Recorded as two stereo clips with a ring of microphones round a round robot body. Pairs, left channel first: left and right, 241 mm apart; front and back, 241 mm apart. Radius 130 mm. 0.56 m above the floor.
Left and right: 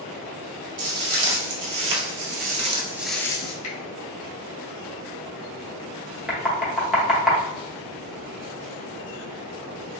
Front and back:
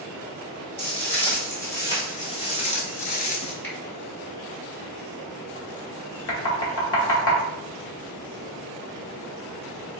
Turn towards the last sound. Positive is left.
turn(degrees=0)